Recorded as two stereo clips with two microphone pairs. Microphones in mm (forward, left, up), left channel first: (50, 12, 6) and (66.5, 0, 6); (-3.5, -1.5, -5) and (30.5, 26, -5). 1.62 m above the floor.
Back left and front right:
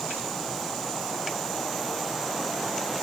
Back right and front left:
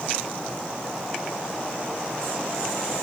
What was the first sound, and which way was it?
Only background noise.